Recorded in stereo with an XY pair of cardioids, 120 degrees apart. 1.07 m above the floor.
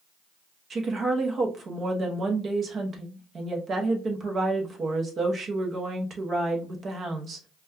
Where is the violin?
No violin in this recording.